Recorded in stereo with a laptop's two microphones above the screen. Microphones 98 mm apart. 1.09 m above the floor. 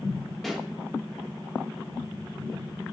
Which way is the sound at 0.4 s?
5° left (ahead or behind).